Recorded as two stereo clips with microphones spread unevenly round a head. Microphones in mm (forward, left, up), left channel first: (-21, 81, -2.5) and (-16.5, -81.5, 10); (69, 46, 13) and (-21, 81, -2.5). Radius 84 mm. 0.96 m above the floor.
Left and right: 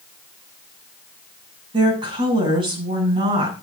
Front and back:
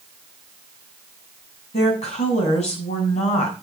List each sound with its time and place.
1.7 s a woman speaking: 25° right, 7 m